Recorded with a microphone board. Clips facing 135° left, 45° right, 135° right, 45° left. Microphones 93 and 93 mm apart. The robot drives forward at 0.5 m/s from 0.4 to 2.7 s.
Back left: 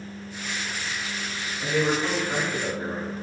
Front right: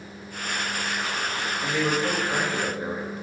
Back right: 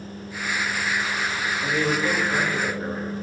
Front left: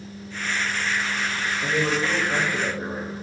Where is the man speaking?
55° left, 1.3 m; by 3.2 s 90° left, 1.1 m.